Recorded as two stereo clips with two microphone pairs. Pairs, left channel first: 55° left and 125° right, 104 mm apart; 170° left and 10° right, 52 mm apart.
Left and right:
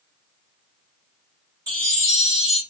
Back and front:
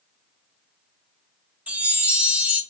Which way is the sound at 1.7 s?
70° right.